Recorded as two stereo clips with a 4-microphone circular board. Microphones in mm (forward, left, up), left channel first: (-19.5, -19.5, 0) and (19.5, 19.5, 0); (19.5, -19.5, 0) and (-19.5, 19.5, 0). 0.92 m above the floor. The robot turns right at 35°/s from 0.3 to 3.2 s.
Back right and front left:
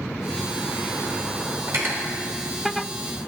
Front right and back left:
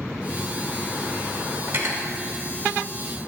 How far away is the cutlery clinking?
About 2 m.